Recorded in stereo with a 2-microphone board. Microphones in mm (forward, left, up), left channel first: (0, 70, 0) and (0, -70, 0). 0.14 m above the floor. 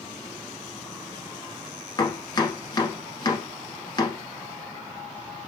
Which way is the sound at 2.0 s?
30° left (ahead or behind).